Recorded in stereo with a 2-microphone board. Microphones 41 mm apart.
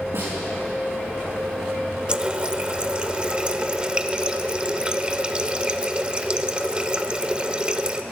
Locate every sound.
0.1 s a snare drum: 90° right, 6.5 m
2.1 s a running tap: 20° right (ahead or behind), 0.6 m